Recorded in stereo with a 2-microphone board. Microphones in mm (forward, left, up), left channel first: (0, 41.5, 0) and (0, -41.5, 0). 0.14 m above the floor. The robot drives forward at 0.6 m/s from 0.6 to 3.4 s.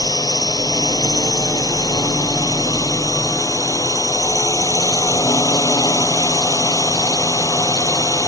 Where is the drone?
50° left (ahead or behind); by 8.3 s 45° left (ahead or behind).